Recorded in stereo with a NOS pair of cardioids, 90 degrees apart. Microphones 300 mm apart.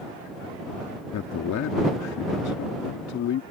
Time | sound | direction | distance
1.1 | a man speaking | 65° left | ?